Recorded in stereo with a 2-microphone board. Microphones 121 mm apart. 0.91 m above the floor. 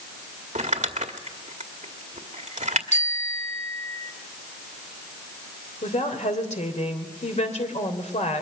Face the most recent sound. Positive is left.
turn(degrees=70)  # may be behind; listen again after turning